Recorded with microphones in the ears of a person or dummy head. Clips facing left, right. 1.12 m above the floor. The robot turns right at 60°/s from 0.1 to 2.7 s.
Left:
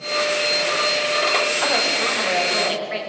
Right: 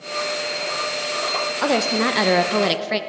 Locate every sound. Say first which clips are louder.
1.6 s a woman speaking: right 4 dB; 135° right, 0.8 m; by 3.0 s 70° right, 0.8 m